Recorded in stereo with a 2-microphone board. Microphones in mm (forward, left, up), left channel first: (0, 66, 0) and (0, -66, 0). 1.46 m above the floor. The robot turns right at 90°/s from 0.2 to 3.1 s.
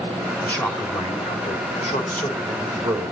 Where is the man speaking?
5° left, 4.5 m; by 3.1 s 115° right, 4.5 m.